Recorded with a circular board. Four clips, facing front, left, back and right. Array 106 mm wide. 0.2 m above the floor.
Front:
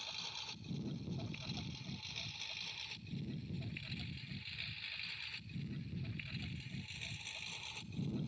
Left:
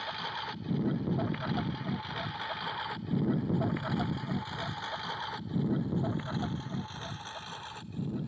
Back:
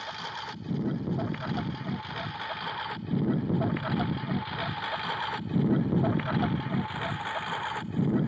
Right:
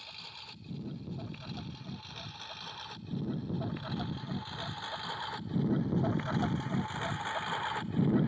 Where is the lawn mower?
135° left; by 8.3 s 145° right.